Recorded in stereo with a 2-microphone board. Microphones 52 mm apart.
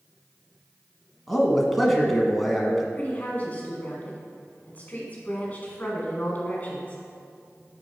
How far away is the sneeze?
I don't hear a sneeze.